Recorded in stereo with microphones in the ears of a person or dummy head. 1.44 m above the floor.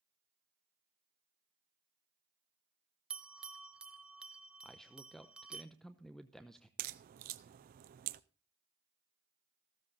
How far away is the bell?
About 0.6 m.